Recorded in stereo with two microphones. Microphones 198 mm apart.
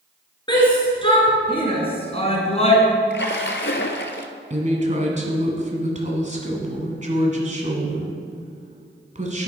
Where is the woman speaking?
35° right (ahead or behind), 1.6 m.